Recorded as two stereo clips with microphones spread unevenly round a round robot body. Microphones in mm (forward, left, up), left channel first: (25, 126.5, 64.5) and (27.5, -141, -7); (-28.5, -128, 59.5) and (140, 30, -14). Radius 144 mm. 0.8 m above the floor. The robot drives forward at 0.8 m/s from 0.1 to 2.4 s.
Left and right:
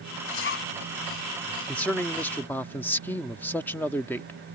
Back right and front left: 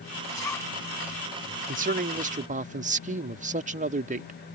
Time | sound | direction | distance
0.3 | a zipper | 140° left | ?
1.7 | a man speaking | straight ahead | ?